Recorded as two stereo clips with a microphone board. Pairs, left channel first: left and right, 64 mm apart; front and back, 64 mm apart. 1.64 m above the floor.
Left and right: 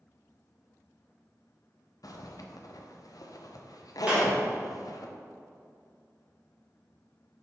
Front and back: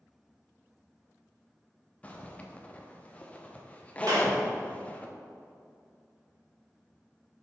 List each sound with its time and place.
2.0 s a zipper: 70° left, 0.6 m
4.1 s a clap: 160° right, 1.8 m